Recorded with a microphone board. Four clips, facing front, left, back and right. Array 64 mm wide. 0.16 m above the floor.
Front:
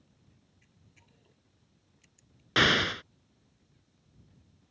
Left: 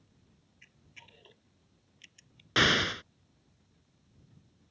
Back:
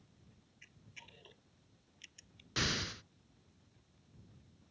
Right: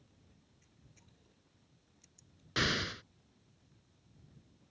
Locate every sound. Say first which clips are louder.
0.6 s a camera shutter: left 14 dB, back 10 dB; 120° left
2.6 s an explosion: left 8 dB, front 14 dB; 35° left